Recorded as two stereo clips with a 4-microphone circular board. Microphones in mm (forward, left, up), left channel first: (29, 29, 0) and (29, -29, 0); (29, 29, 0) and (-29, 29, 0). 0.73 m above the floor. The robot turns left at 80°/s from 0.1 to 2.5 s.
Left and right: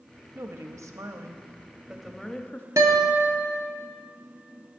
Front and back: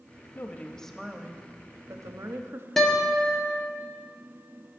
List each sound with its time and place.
0.3 s a woman speaking: 40° right, 0.8 m; by 2.7 s 145° left, 0.8 m
2.8 s a guitar: 85° right, 1.3 m